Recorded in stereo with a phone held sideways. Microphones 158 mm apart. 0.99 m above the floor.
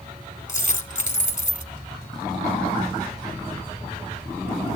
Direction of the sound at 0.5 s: 55° left (ahead or behind).